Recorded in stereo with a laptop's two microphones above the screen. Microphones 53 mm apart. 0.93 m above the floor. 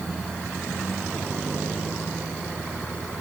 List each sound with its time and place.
Only background noise.